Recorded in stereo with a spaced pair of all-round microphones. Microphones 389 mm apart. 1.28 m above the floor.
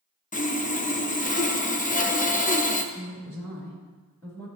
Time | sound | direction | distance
0.3 | sawing | 20° left (ahead or behind) | 0.5 m
2.9 | a woman speaking | 5° left (ahead or behind) | 2.5 m